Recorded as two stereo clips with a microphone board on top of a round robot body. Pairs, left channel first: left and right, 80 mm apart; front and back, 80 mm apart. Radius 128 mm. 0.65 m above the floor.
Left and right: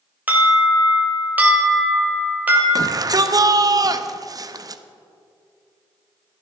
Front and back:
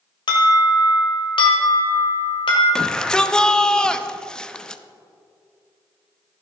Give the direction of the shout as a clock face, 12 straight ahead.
3 o'clock.